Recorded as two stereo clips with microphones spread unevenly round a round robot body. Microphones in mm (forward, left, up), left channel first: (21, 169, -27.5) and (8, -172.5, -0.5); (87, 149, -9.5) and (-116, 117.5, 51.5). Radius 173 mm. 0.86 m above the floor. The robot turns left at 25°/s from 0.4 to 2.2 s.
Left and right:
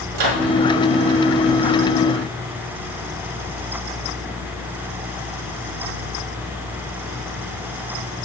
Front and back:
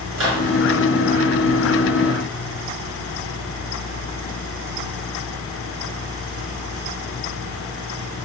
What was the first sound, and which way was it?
A microwave, 115° right.